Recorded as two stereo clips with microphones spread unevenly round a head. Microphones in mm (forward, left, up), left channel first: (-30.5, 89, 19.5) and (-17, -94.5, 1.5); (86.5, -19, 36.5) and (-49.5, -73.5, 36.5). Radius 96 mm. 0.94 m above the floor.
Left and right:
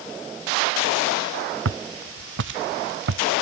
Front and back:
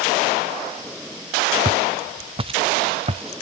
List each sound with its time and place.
1.6 s footsteps: 105° right; by 3.4 s 110° right